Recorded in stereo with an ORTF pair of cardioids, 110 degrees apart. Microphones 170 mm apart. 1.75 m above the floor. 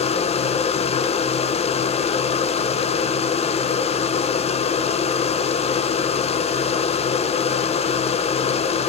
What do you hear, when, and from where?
0.0 s a machine running: 40° left, 1.5 m